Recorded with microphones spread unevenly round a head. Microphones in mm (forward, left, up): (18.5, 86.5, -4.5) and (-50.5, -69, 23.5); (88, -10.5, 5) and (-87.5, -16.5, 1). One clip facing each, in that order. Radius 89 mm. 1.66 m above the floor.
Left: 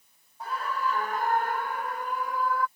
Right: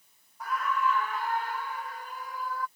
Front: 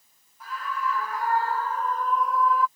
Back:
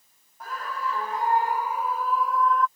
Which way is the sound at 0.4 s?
130° left.